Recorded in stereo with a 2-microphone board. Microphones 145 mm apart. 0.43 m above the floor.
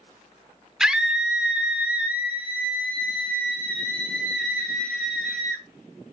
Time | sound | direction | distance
0.8 | a scream | 5° right (ahead or behind) | 1.1 m